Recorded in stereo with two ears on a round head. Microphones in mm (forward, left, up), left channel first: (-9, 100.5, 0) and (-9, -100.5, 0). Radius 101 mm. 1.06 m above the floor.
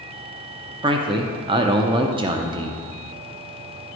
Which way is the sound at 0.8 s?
20° right (ahead or behind).